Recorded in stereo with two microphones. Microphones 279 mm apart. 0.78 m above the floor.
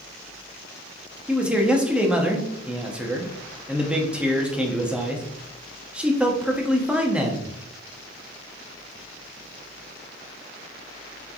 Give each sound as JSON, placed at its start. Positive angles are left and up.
{"t": 1.3, "sound": "a man speaking", "side_deg": -5, "distance_m": 1.2}